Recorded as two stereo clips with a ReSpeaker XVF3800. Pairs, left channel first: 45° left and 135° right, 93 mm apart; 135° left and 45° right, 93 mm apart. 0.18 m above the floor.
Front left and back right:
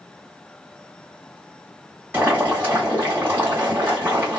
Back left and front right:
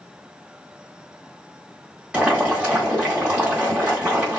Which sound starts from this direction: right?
Boiling, at 2.1 s.